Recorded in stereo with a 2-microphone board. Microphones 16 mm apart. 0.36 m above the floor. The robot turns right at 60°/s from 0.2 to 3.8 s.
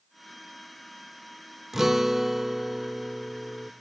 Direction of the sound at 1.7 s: 20° right (ahead or behind).